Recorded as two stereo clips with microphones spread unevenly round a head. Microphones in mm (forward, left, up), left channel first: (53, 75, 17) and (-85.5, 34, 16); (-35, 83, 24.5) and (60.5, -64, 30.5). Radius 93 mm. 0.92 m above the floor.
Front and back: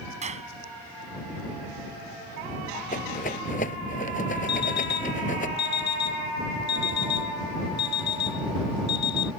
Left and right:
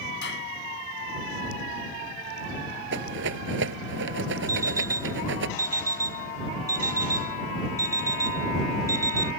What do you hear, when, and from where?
0.2 s a clap: 155° left
2.9 s a rattle: 35° right
4.5 s an alarm clock: 15° left